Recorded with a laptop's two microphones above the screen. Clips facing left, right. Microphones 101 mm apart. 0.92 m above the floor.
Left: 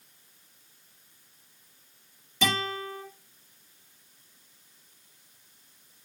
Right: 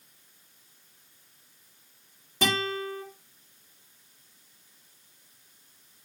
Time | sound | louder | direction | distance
2.4 | a guitar | right 1 dB | 40° right (ahead or behind) | 4 m